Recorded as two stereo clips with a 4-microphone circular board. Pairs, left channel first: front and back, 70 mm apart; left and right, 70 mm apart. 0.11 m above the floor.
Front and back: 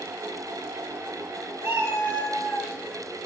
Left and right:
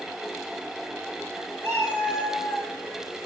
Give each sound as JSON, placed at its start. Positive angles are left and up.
{"t": 1.6, "sound": "a cat meowing", "azimuth_deg": 140, "distance_m": 1.1}